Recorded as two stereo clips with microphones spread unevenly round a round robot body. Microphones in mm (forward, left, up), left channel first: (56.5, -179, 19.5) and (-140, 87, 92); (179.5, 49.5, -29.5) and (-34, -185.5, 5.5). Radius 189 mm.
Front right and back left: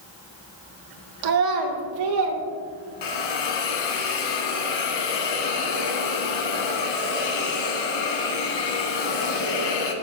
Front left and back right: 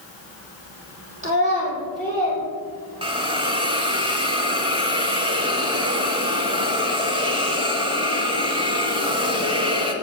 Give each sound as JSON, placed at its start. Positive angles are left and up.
{"t": 1.2, "sound": "a child speaking", "azimuth_deg": 155, "distance_m": 1.8}
{"t": 3.0, "sound": "a hiss", "azimuth_deg": -65, "distance_m": 1.2}